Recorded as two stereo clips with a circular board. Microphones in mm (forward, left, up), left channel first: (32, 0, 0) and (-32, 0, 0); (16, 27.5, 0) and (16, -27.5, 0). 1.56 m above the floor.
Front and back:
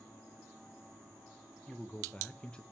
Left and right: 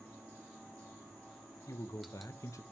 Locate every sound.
1.7 s a man speaking: 75° left, 0.7 m